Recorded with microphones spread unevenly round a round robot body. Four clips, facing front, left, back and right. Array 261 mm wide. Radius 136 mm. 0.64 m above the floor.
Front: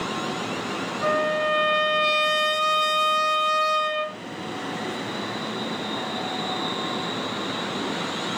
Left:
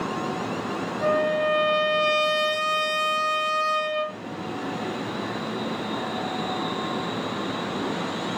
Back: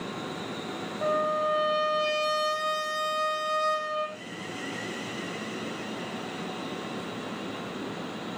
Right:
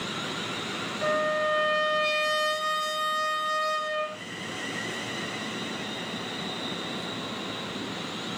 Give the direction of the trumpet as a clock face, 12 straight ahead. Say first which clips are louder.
Left 4 dB, front 3 dB; 7 o'clock.